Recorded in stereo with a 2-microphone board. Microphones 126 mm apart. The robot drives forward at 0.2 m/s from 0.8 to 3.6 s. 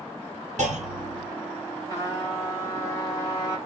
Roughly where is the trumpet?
Left.